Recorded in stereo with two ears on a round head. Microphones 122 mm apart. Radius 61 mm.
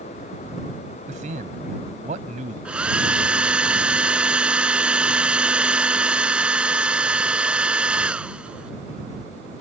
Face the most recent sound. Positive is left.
turn(degrees=-10)  # may be behind; listen again after turning